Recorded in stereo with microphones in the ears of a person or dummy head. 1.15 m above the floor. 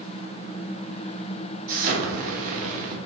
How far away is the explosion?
About 0.7 m.